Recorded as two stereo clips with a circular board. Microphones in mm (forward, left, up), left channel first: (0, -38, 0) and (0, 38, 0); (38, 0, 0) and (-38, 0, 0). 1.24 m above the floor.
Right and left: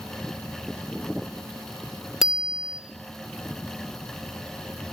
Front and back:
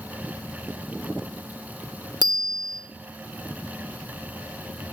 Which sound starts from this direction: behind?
A bicycle bell, at 2.2 s.